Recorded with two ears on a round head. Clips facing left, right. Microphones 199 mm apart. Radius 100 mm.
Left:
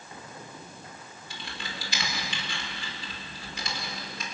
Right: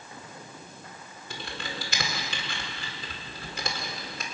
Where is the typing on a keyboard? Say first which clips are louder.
Right 4 dB; 45° right (ahead or behind), 4 m.